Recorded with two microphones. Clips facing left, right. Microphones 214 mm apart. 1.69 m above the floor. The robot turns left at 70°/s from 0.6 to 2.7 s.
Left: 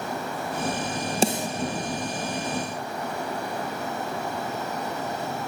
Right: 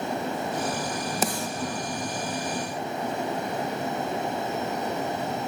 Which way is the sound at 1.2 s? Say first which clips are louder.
Left 7 dB; 30° left (ahead or behind).